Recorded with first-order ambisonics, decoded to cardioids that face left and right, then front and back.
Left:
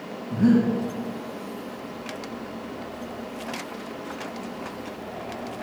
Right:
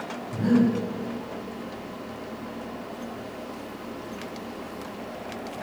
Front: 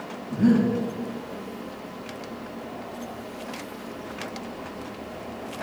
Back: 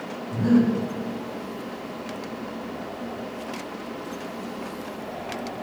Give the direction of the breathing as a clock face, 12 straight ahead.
10 o'clock.